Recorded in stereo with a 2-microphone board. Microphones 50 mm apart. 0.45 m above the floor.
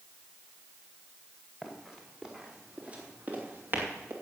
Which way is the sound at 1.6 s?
Centre (ahead or behind).